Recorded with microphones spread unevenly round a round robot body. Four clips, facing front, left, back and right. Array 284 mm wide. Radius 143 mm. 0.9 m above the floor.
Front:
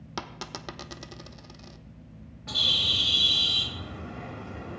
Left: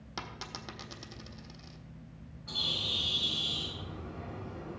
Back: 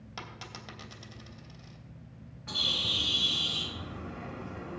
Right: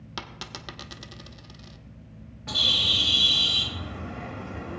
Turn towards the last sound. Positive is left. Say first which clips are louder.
# right 8 dB, front 3 dB
turn(degrees=-85)